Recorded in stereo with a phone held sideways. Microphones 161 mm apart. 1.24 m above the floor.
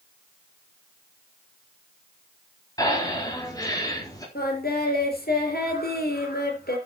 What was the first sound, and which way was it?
Breathing, 25° left (ahead or behind).